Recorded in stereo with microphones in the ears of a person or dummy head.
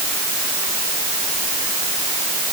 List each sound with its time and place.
Only background noise.